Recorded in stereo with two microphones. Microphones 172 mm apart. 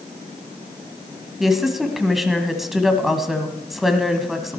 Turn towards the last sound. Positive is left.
turn(degrees=0)  # may be behind; listen again after turning